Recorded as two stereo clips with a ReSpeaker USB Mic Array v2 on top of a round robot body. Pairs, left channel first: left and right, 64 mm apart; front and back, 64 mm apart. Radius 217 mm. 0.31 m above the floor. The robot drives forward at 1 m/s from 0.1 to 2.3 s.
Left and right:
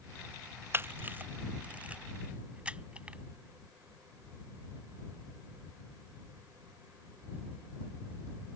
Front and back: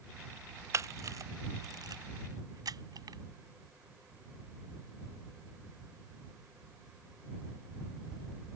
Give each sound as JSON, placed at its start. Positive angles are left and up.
{"t": 0.7, "sound": "a camera shutter", "azimuth_deg": -145}